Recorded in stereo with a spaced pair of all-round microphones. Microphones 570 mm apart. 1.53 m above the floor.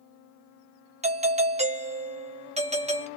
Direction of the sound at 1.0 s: 10° right (ahead or behind).